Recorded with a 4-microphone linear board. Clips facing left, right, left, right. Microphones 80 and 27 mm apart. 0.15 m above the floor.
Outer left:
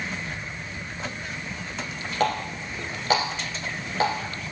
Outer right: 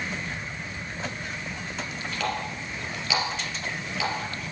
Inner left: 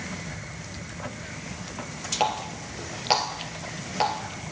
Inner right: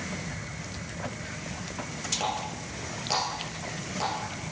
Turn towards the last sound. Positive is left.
turn(degrees=45)  # may be behind; listen again after turning